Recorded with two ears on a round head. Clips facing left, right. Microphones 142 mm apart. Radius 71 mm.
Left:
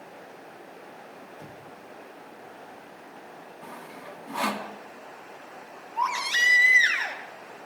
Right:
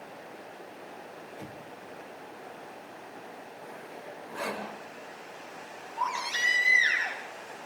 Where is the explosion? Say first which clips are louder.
Right 1 dB; 15° right (ahead or behind), 7 m.